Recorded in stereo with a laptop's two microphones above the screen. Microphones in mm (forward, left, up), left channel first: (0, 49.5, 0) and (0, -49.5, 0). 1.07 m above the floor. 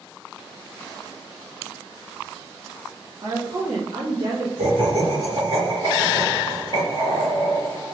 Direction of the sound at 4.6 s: 75° right (ahead or behind).